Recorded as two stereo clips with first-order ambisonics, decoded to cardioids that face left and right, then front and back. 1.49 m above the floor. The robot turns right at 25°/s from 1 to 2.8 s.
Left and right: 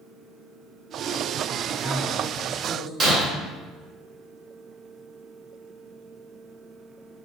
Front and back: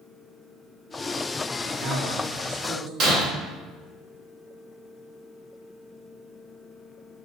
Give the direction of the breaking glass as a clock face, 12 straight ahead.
5 o'clock.